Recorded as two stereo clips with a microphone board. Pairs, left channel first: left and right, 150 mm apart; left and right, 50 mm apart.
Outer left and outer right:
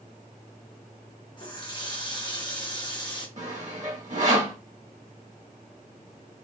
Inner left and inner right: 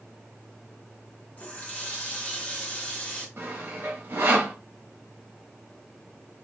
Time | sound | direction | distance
1.4 | a running tap | 30° left (ahead or behind) | 0.8 m
3.4 | sawing | 50° right (ahead or behind) | 1.0 m